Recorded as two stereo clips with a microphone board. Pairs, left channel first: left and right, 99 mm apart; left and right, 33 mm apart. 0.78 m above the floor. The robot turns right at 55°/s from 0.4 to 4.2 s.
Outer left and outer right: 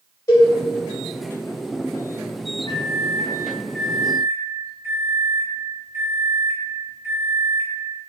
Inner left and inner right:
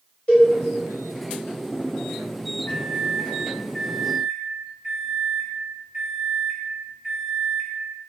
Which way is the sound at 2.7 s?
125° left.